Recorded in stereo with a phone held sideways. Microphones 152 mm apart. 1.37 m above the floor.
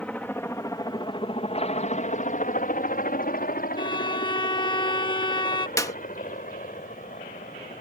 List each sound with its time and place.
0.0 s a helicopter: 10° left (ahead or behind); by 7.8 s 60° left (ahead or behind)
3.8 s a violin: 30° left (ahead or behind)
5.8 s a clap: 20° left (ahead or behind)